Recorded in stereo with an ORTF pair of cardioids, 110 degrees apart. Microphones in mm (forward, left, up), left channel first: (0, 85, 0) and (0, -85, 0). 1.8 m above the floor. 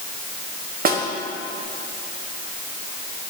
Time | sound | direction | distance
0.8 | a snare drum | 55° right | 1.6 m